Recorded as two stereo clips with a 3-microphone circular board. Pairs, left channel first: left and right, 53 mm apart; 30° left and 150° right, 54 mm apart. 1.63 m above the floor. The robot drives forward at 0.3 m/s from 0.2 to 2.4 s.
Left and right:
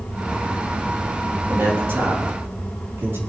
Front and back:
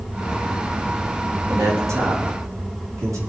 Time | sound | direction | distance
1.5 | a man speaking | 130° right | 3.5 m